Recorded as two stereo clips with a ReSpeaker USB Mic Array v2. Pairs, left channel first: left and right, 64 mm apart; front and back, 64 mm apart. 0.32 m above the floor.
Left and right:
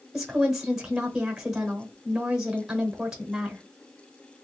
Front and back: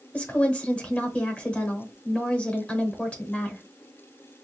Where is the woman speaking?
25° right, 1.0 m.